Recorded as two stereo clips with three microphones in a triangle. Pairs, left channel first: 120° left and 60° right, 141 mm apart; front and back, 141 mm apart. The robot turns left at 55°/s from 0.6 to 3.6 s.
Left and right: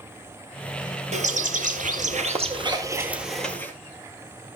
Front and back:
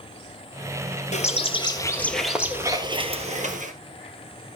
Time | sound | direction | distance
1.1 | a bird | 30° right | 1.7 m